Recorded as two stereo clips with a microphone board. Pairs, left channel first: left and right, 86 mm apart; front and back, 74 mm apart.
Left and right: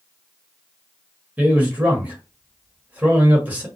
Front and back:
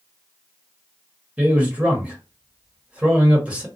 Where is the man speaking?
130° right, 1.1 m.